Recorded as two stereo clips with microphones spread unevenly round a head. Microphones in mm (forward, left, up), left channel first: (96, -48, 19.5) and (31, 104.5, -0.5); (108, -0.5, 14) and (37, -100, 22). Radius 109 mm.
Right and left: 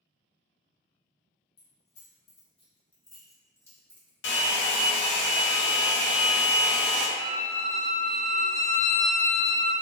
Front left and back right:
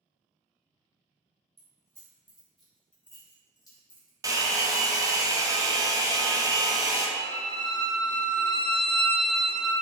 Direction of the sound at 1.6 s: 80° right.